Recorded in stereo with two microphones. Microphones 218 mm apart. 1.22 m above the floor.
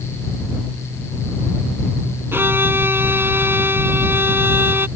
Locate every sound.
2.3 s a violin: 10° right (ahead or behind)